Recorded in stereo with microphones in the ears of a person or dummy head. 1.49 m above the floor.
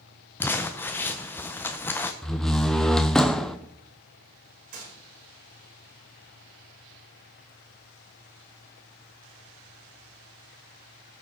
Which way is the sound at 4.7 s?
55° right (ahead or behind).